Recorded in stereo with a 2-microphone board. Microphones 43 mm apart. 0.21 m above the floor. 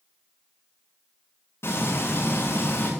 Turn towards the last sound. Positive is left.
turn(degrees=75)  # may be behind; listen again after turning